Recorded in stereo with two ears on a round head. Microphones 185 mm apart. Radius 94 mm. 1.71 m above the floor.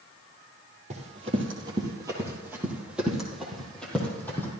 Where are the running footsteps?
30° right (ahead or behind), 2.5 m; by 4.5 s 10° left (ahead or behind), 3.5 m.